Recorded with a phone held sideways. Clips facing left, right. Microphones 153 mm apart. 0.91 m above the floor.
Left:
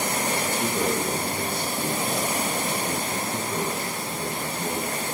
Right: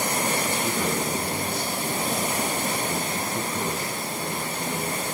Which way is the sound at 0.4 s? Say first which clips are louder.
Left 1 dB; 55° left (ahead or behind).